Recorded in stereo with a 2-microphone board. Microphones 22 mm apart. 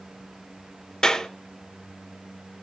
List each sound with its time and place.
1.0 s a clap: 30° left (ahead or behind), 3 m